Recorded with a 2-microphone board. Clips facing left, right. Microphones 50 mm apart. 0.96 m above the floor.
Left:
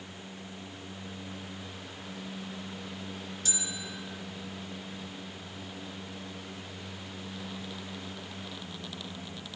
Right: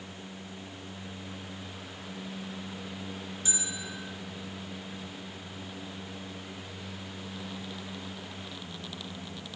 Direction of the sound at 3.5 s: 20° right (ahead or behind).